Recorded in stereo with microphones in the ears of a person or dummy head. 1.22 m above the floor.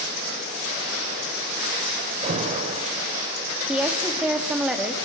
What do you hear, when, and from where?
2.2 s an alarm: 40° right (ahead or behind), 3.5 m
3.7 s a woman speaking: centre (ahead or behind), 2.5 m